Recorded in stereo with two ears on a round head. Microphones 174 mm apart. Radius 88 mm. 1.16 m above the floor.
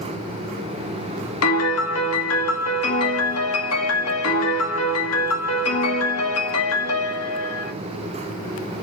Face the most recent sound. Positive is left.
turn(degrees=85)